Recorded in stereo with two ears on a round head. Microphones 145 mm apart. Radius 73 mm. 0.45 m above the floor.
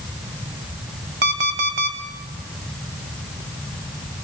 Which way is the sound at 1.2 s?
65° right (ahead or behind).